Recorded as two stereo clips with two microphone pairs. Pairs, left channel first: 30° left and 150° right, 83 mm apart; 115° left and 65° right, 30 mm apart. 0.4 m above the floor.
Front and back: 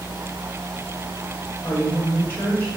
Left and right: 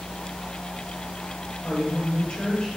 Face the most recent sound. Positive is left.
turn(degrees=90)